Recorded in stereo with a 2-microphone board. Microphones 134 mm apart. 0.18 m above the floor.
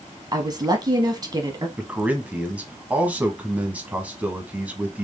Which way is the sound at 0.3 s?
30° right (ahead or behind).